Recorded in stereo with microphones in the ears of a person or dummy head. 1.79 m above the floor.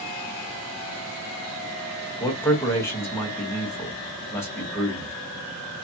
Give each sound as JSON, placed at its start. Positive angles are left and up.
{"t": 2.2, "sound": "a man speaking", "side_deg": 15, "distance_m": 0.8}